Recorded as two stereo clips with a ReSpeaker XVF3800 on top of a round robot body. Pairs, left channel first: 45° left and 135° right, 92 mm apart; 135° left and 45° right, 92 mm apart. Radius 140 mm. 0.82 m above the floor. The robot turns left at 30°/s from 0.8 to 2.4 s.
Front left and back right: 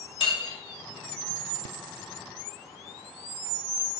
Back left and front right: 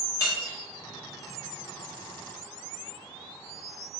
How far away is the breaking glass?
About 2.5 m.